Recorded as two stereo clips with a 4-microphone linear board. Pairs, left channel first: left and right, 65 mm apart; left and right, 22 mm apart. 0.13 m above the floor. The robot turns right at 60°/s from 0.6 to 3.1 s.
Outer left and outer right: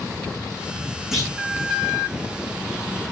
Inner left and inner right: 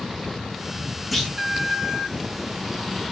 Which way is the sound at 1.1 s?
5° right (ahead or behind).